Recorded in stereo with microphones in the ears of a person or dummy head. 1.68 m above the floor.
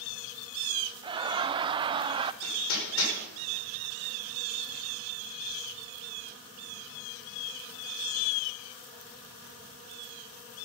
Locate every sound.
1.0 s laughter: 25° right (ahead or behind), 0.6 m
2.4 s hammering: 85° left, 6.5 m